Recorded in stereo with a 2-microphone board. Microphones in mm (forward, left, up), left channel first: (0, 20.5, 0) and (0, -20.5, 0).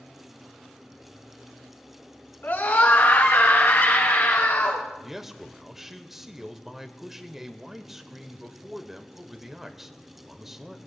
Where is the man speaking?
5° right (ahead or behind), 0.8 m.